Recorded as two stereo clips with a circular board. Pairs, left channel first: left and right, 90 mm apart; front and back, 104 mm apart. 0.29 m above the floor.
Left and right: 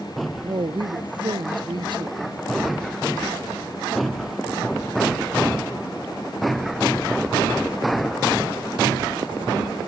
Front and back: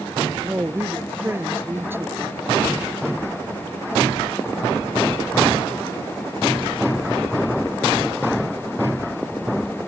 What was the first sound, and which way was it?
A woman speaking, 115° right.